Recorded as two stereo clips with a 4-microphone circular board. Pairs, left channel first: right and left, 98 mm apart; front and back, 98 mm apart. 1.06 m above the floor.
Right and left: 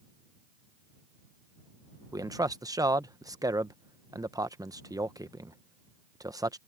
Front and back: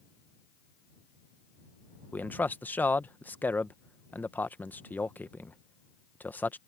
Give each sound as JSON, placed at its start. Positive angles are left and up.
{"t": 2.1, "sound": "a man speaking", "azimuth_deg": 65}